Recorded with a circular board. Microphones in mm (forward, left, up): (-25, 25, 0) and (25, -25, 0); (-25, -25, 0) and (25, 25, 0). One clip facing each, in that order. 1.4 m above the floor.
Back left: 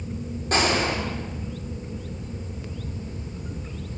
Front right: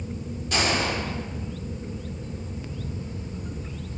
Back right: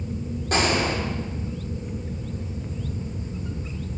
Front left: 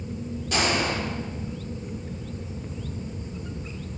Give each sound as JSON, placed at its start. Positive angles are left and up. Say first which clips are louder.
{"t": 0.5, "sound": "a gunshot", "louder": "back left 3 dB, back right 2 dB", "azimuth_deg": 180, "distance_m": 5.0}